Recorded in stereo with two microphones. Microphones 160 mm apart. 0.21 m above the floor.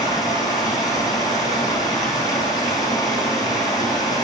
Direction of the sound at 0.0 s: 25° left (ahead or behind).